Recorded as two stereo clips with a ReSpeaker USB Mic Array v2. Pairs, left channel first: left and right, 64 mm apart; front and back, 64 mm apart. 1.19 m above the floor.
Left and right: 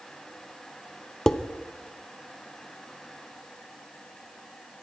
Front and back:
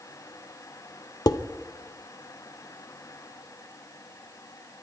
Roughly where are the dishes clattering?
Ahead.